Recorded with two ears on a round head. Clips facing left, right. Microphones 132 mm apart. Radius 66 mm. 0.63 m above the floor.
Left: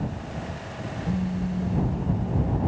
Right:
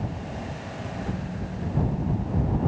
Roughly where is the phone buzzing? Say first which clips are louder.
Left 5 dB; left.